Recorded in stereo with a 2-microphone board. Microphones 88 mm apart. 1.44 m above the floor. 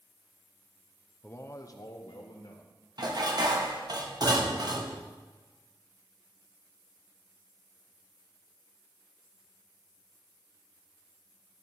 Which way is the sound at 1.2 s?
20° left (ahead or behind).